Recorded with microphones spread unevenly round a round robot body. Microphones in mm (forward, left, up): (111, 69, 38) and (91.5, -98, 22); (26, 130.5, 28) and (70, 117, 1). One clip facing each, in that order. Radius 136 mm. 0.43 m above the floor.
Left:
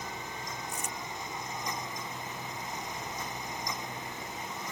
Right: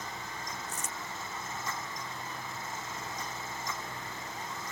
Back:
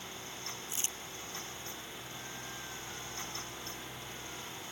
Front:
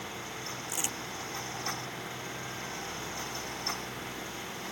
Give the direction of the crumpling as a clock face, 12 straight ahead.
10 o'clock.